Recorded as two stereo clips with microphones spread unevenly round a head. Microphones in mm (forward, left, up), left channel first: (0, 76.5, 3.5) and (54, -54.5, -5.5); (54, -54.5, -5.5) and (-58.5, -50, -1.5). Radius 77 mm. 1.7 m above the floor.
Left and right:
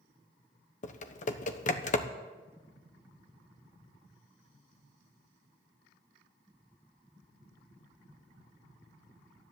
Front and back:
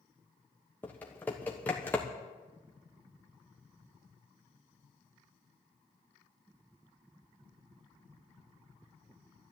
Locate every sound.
0.8 s typing on a keyboard: 75° left, 1.0 m